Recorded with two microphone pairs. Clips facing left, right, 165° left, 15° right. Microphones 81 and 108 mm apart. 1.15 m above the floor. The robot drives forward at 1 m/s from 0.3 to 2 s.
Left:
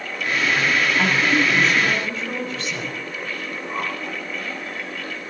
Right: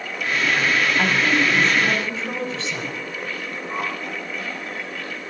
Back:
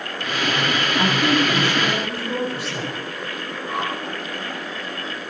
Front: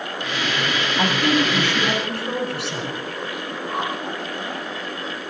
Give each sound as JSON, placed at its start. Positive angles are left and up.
{"t": 1.0, "sound": "a woman speaking", "azimuth_deg": -30, "distance_m": 8.0}
{"t": 3.7, "sound": "a whoosh", "azimuth_deg": -100, "distance_m": 5.0}